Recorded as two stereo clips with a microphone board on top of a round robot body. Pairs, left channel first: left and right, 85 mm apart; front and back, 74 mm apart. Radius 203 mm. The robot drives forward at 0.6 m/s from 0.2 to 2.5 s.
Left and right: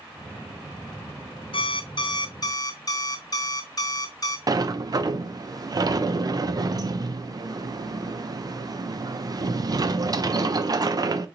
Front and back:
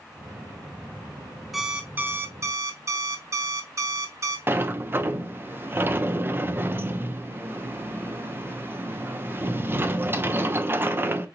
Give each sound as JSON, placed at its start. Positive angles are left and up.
{"t": 1.5, "sound": "an alarm clock", "azimuth_deg": 90, "distance_m": 0.7}
{"t": 4.5, "sound": "a sliding door", "azimuth_deg": -125, "distance_m": 0.7}